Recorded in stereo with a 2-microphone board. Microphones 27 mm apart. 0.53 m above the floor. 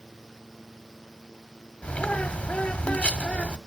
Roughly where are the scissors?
I don't hear scissors.